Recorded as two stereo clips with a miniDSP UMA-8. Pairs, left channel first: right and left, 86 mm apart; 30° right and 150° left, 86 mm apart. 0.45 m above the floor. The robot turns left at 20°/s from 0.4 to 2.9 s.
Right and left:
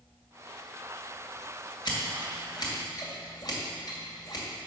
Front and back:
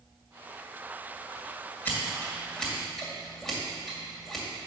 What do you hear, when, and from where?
1.9 s scissors: 95° right, 2.5 m; by 4.5 s 115° right, 2.5 m